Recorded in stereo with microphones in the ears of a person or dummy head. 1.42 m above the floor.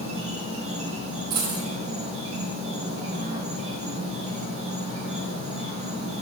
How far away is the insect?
About 1.6 m.